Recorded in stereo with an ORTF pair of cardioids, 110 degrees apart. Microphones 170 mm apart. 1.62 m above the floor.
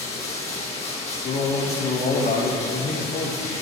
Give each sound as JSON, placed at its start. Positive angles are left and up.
{"t": 0.0, "sound": "running water", "azimuth_deg": 40, "distance_m": 1.9}
{"t": 1.2, "sound": "a man speaking", "azimuth_deg": 55, "distance_m": 2.0}